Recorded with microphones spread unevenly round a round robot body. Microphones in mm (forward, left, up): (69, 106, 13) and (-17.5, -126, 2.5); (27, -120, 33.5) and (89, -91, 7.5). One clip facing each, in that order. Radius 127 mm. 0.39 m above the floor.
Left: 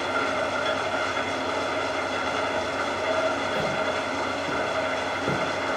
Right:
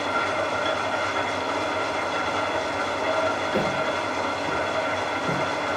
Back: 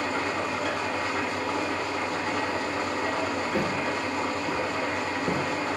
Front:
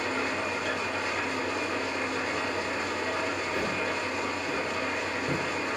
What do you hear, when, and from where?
0.0 s an engine running: 135° right, 1.3 m
3.5 s footsteps: 150° right, 0.7 m; by 5.4 s 130° left, 1.1 m